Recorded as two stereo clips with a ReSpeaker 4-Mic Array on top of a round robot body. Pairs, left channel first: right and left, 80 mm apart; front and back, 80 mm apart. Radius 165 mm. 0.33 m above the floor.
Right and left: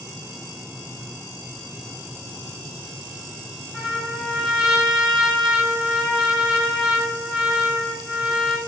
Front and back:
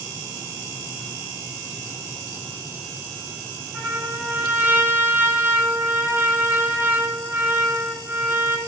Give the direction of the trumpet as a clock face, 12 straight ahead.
7 o'clock.